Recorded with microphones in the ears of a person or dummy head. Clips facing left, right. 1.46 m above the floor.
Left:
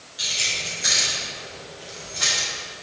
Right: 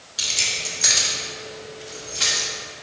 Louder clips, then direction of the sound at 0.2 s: Right 1 dB; 75° right (ahead or behind).